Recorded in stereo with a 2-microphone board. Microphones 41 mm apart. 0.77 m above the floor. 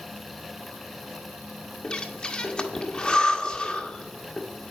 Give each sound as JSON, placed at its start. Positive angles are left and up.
{"t": 1.8, "sound": "breathing", "side_deg": 25, "distance_m": 1.6}